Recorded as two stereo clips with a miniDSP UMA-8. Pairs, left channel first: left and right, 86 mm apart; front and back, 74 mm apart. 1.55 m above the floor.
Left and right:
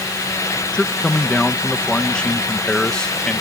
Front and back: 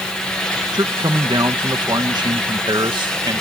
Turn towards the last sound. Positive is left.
turn(degrees=170)